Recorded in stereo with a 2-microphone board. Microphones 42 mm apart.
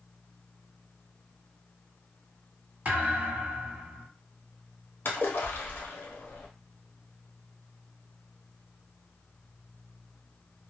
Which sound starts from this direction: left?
A splash, at 5.0 s.